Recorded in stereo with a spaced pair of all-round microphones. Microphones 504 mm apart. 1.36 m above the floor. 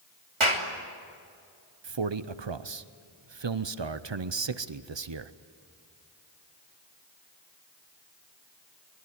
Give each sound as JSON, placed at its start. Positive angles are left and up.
{"t": 0.4, "sound": "a clap", "side_deg": -70, "distance_m": 3.0}
{"t": 1.8, "sound": "a man speaking", "side_deg": -60, "distance_m": 0.7}